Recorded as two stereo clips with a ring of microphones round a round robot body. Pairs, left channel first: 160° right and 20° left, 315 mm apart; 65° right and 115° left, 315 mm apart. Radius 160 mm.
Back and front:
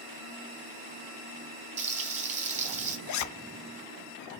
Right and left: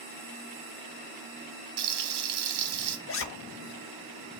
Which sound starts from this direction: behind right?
A zipper, at 3.1 s.